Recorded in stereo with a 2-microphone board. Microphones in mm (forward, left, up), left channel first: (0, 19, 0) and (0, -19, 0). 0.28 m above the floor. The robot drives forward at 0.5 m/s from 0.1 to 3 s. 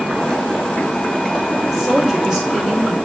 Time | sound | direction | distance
1.7 | a woman speaking | 10° right (ahead or behind) | 1.1 m